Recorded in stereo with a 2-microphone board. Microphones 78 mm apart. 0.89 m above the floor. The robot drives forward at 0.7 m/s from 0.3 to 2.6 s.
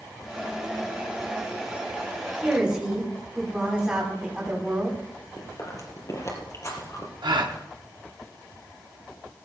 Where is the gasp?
70° right (ahead or behind), 1.5 m.